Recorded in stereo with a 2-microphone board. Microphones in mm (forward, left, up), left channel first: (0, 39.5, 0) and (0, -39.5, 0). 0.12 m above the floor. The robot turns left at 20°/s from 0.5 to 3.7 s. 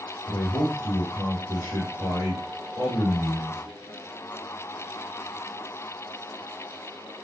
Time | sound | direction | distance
0.3 | a man speaking | 155° left | 2.5 m